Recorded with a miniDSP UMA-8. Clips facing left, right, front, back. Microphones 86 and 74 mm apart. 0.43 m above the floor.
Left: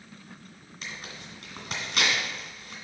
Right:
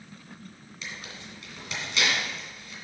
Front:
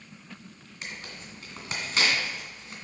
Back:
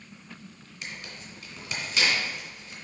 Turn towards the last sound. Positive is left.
turn(degrees=40)